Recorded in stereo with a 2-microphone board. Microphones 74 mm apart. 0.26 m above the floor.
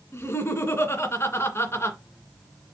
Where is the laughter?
35° left (ahead or behind), 2.5 m.